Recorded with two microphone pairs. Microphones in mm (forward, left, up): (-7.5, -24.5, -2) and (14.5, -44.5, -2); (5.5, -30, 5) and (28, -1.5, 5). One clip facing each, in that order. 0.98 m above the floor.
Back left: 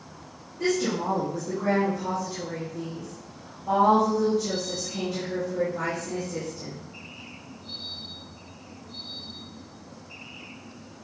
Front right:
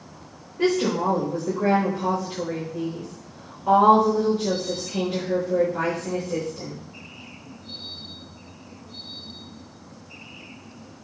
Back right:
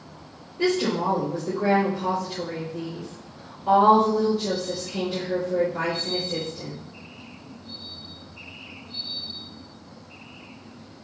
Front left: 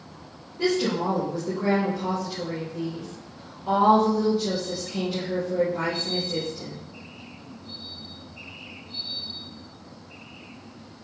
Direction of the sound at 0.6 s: 45° right.